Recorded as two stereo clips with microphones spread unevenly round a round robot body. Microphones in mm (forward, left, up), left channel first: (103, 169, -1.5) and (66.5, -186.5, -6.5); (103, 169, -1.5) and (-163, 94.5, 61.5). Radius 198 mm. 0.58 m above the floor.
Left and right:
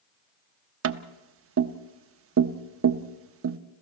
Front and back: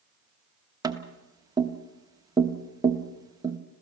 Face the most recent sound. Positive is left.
turn(degrees=-75)